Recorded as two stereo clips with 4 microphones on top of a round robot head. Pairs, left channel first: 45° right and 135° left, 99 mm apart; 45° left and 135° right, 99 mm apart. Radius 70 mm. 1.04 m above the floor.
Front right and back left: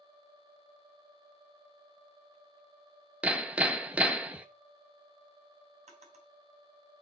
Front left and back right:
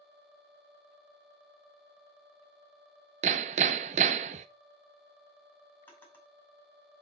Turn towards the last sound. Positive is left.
turn(degrees=120)